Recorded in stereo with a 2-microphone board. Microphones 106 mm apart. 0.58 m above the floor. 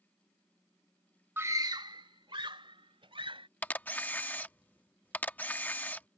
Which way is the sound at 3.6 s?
15° left (ahead or behind).